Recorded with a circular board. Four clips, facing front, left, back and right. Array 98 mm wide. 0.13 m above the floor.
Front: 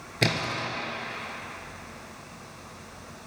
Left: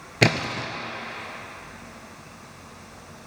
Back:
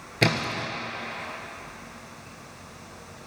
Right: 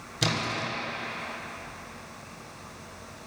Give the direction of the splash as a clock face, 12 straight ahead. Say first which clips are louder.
Left 6 dB, back 2 dB; 9 o'clock.